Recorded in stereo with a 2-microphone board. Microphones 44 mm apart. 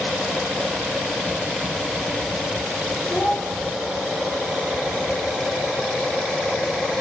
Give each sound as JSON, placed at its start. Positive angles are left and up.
{"t": 3.1, "sound": "a child speaking", "side_deg": 40, "distance_m": 4.0}